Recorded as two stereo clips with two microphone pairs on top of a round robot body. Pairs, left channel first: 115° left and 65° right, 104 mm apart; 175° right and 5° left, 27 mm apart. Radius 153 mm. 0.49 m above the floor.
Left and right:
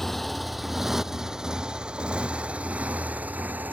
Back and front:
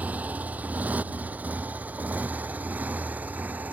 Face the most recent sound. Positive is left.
turn(degrees=10)